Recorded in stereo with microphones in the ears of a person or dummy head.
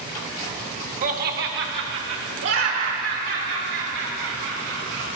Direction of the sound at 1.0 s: 35° right (ahead or behind).